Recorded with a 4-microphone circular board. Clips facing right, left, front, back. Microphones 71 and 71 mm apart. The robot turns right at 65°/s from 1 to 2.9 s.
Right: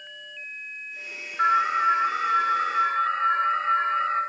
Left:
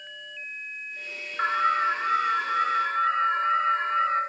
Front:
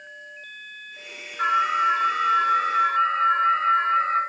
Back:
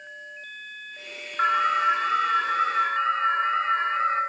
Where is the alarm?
155° left, 2.5 m; by 4.2 s 105° right, 2.5 m.